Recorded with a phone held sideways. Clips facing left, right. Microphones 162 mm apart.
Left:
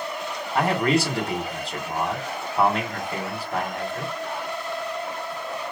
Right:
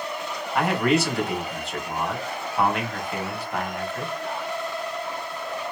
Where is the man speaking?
30° left (ahead or behind), 3 m.